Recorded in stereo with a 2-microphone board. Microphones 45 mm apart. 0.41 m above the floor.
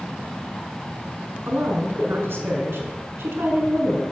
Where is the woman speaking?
65° right (ahead or behind), 4.5 m.